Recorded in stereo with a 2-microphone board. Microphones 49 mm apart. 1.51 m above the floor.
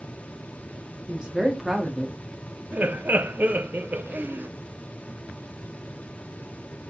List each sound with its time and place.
1.1 s a woman speaking: 20° right (ahead or behind), 1.7 m; by 2.2 s centre (ahead or behind), 1.2 m
2.7 s laughter: 35° right (ahead or behind), 0.6 m